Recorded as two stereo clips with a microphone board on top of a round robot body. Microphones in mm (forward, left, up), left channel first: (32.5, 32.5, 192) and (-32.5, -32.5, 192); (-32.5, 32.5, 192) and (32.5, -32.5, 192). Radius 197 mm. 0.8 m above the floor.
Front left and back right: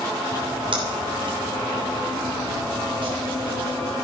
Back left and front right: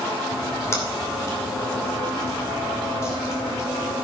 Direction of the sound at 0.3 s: 165° right.